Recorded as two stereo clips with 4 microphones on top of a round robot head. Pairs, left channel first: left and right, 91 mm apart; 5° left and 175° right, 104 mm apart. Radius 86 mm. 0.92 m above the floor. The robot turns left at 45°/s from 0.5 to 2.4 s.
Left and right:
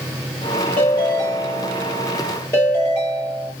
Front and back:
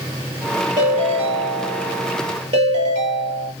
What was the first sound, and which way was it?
A ringtone, 120° right.